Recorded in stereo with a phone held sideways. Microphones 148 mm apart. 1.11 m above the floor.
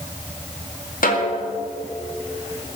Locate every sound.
1.0 s a snare drum: 70° left (ahead or behind), 2 m